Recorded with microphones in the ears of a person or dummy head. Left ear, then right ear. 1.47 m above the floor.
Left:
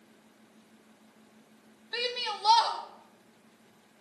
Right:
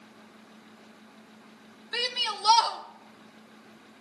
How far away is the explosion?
No explosion in this recording.